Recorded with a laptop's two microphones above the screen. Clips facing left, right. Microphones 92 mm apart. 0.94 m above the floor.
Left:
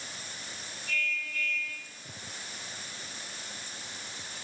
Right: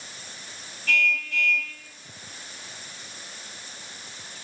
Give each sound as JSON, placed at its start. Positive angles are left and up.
{"t": 0.9, "sound": "a car horn", "side_deg": -85, "distance_m": 3.5}